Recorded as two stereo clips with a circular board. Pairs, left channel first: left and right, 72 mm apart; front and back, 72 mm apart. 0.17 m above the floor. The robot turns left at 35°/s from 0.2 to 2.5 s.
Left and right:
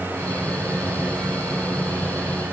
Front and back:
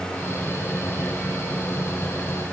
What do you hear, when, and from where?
Only background noise.